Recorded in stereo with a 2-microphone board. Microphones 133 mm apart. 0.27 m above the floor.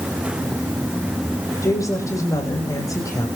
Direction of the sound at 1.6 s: 25° left (ahead or behind).